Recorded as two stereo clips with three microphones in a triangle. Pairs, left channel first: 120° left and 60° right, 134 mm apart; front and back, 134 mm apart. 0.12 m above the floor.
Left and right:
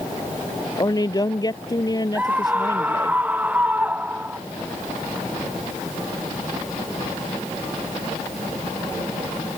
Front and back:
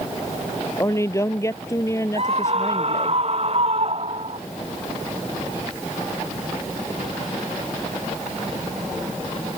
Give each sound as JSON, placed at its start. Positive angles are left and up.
{"t": 0.8, "sound": "a woman speaking", "azimuth_deg": 65}
{"t": 2.1, "sound": "a scream", "azimuth_deg": -140}